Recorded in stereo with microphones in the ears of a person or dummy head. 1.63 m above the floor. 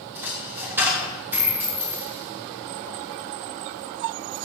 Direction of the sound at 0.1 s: 15° right (ahead or behind).